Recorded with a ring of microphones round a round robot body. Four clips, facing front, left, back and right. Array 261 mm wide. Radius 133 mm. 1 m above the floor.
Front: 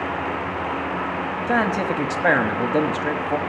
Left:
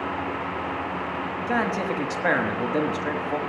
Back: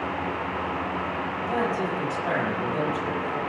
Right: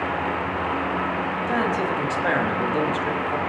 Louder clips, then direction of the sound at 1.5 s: Right 1 dB, front 5 dB; 10° left.